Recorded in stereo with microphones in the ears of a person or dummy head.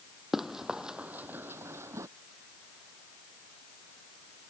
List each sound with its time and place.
0.3 s running footsteps: centre (ahead or behind); by 2.1 s 15° right (ahead or behind)